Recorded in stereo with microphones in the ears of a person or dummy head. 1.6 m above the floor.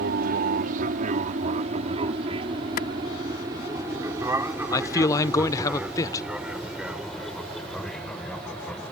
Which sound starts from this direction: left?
A clap, at 2.8 s.